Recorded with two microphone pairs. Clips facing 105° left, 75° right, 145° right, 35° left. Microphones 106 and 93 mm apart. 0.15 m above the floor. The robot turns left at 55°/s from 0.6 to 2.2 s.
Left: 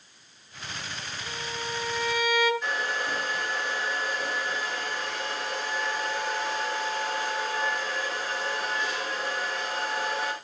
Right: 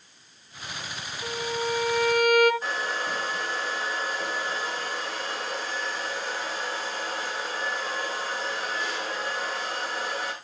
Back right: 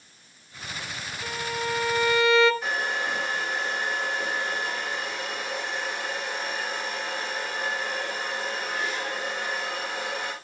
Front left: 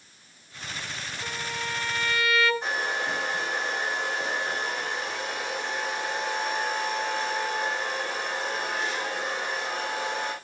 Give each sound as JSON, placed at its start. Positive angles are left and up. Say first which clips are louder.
{"t": 1.2, "sound": "a violin", "louder": "right 8 dB, back right 5 dB", "azimuth_deg": -40, "distance_m": 1.0}
{"t": 2.6, "sound": "a hair dryer", "louder": "even, back right 1 dB", "azimuth_deg": -25, "distance_m": 5.0}